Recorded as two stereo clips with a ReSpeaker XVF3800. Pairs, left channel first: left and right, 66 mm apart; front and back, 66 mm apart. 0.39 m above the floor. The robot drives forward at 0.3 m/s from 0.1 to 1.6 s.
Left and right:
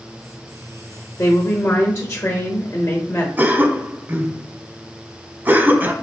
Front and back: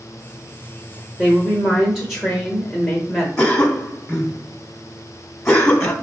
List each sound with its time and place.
1.2 s a woman speaking: 100° left, 1.0 m; by 3.3 s 110° left, 1.0 m
3.4 s a cough: 75° right, 0.8 m